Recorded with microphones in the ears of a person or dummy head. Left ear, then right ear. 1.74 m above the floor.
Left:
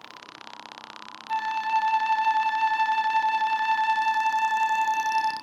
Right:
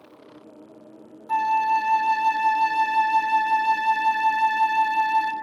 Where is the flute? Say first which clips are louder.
Right 5 dB; centre (ahead or behind), 0.6 m.